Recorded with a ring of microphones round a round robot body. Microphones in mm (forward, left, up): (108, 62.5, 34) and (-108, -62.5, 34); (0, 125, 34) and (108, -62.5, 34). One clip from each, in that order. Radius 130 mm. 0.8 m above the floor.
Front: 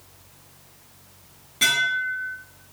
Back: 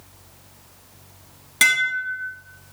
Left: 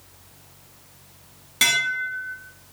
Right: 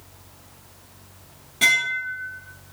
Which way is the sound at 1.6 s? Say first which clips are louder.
Back 2 dB, right 1 dB; 175° left.